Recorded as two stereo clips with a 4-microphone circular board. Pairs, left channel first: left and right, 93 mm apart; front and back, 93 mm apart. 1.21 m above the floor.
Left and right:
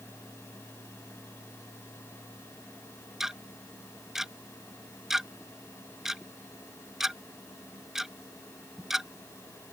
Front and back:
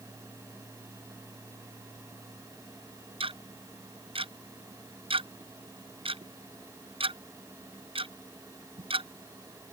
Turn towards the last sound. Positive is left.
turn(degrees=-175)